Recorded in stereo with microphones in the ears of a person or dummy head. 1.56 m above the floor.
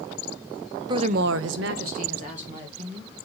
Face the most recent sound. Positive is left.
turn(degrees=-35)  # may be behind; listen again after turning